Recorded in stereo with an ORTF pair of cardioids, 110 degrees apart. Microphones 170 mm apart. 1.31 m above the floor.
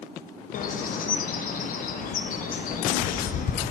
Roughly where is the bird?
Ahead left.